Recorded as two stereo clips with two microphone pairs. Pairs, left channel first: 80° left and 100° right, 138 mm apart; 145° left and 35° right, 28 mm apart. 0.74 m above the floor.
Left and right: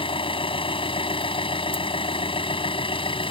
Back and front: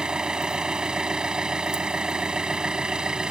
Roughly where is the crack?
No crack in this recording.